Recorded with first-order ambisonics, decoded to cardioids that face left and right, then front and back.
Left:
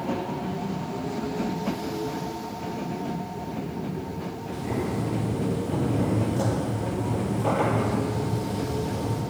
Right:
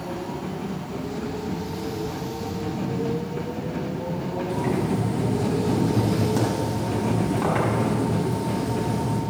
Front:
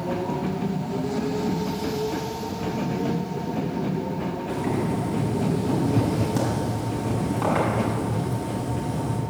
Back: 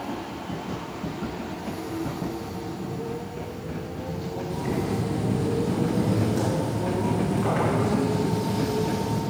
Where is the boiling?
45° right, 5 m.